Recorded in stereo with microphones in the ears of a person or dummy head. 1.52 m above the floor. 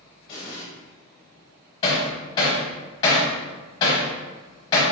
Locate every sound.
0.3 s an explosion: 20° left (ahead or behind), 0.9 m
1.8 s hammering: 25° left (ahead or behind), 1.0 m